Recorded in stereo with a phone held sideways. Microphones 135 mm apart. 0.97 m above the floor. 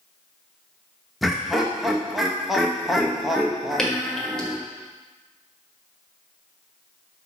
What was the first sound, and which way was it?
Laughter, centre (ahead or behind).